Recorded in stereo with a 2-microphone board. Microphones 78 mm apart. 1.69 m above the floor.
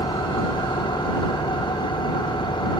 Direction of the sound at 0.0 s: 85° left.